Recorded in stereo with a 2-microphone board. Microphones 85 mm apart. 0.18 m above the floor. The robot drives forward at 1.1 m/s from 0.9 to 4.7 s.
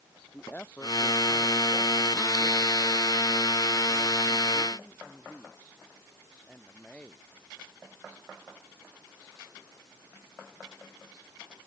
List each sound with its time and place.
0.3 s a woman speaking: 20° left (ahead or behind); by 7.2 s 15° left (ahead or behind)